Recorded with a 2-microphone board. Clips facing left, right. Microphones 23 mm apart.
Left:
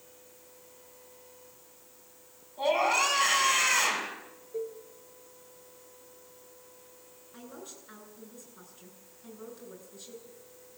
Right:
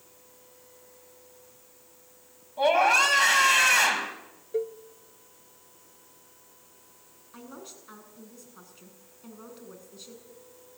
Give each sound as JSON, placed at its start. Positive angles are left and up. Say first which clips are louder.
{"t": 2.6, "sound": "a scream", "louder": "right 5 dB", "side_deg": -65, "distance_m": 5.0}
{"t": 4.5, "sound": "a cowbell", "louder": "right 6 dB", "side_deg": -55, "distance_m": 0.6}
{"t": 7.3, "sound": "a woman speaking", "louder": "right 2 dB", "side_deg": -45, "distance_m": 7.0}